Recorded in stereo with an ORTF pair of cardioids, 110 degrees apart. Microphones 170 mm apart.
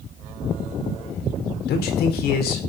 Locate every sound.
1.7 s a man speaking: 70° left, 5 m